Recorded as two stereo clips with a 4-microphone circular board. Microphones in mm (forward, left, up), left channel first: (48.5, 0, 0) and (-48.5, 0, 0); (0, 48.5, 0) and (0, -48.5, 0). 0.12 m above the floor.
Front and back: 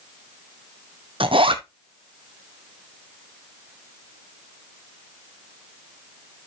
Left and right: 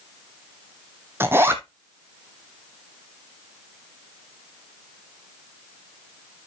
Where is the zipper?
155° right, 1.0 m.